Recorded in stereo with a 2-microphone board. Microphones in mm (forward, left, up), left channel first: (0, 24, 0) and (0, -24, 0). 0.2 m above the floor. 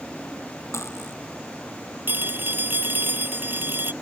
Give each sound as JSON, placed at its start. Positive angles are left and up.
{"t": 0.7, "sound": "cutlery clinking", "side_deg": 80}
{"t": 2.1, "sound": "a phone ringing", "side_deg": -45}